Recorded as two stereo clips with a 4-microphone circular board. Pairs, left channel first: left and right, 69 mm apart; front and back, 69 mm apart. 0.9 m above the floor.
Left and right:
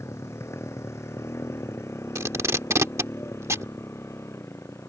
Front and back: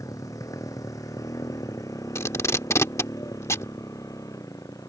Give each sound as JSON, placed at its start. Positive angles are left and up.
{"t": 0.0, "sound": "a motorcycle", "azimuth_deg": 40}
{"t": 2.1, "sound": "tape being pulled", "azimuth_deg": -45}